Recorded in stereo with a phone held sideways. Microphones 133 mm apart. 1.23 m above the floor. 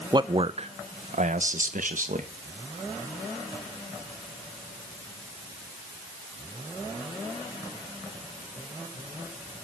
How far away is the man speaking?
About 0.7 m.